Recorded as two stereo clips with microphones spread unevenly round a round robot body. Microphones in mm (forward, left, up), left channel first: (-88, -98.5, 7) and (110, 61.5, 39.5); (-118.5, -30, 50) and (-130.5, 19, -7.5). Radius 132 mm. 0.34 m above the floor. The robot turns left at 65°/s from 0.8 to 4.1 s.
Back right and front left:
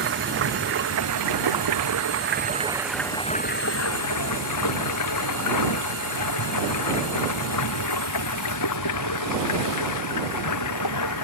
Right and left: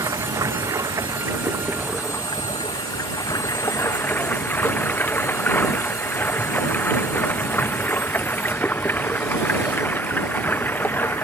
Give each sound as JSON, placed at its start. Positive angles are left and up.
{"t": 0.0, "sound": "running water", "azimuth_deg": 90}